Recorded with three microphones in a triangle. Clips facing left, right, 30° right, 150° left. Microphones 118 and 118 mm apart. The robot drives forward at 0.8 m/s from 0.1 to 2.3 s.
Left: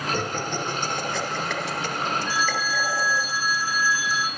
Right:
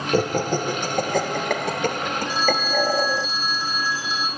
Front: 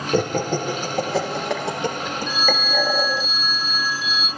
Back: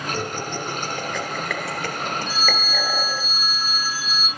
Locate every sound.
0.1 s laughter: 55° right, 2.5 m; by 3.3 s 105° right, 2 m
2.3 s a phone ringing: 155° right, 3.5 m